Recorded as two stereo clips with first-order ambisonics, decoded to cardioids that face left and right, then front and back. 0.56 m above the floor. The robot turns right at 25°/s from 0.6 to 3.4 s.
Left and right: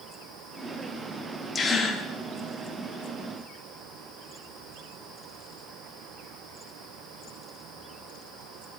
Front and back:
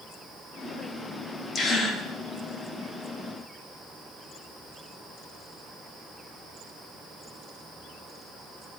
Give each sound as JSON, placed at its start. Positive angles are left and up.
{"t": 1.6, "sound": "a gasp", "azimuth_deg": 40, "distance_m": 1.1}